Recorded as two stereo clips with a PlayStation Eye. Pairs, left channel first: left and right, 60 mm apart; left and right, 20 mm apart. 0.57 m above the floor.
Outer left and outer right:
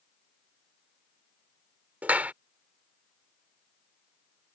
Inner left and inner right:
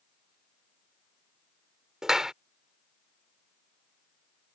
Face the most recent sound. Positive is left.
turn(degrees=-25)  # may be behind; listen again after turning